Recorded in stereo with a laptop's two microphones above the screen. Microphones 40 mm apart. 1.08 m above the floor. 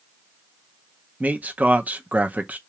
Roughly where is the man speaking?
Right.